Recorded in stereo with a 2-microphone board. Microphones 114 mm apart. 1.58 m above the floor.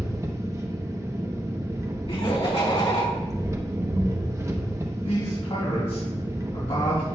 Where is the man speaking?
55° left (ahead or behind), 3.5 m.